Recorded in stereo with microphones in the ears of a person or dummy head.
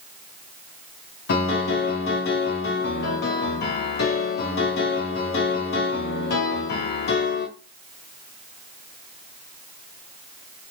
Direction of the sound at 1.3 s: 55° left (ahead or behind).